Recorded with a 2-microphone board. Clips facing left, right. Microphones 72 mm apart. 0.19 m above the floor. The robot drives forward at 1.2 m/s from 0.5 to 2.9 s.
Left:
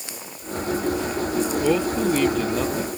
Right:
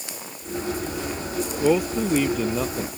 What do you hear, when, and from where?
1.6 s a man speaking: 10° right (ahead or behind); by 2.9 s 5° right (ahead or behind)